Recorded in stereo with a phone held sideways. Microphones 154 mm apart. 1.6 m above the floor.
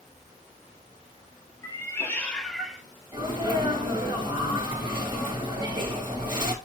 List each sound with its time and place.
1.6 s a cat meowing: 25° left (ahead or behind), 1.0 m; by 2.8 s 10° right (ahead or behind), 0.9 m
3.1 s a sneeze: 30° right (ahead or behind), 2.5 m